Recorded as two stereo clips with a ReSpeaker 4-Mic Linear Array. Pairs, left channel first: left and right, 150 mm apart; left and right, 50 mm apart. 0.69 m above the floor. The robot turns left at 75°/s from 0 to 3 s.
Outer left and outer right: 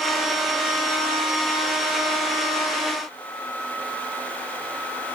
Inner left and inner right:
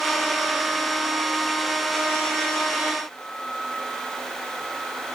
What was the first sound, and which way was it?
Only background noise.